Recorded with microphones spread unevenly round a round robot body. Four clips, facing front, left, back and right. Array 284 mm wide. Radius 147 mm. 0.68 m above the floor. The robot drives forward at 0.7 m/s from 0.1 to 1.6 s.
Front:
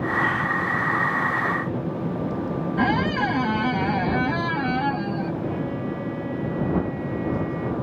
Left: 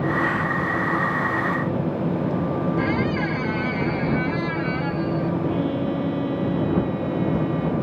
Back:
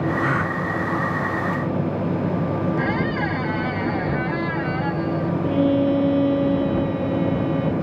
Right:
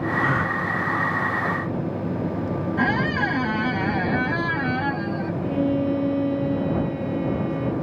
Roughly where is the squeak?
Ahead right.